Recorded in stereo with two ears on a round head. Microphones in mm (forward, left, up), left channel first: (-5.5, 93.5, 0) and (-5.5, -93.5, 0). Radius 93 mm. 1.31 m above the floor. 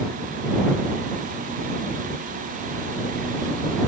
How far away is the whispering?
No whispering in this recording.